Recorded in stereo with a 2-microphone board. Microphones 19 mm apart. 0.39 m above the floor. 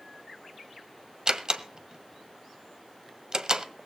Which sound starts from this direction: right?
A door slam, at 1.3 s.